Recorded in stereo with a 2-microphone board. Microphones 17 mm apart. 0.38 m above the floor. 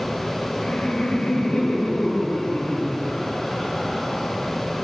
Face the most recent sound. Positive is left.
turn(degrees=80)